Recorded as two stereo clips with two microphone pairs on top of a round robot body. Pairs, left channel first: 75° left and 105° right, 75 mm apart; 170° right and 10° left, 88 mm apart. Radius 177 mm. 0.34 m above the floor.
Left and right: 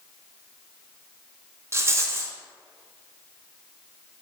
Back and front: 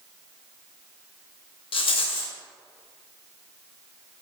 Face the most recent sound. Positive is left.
turn(degrees=-160)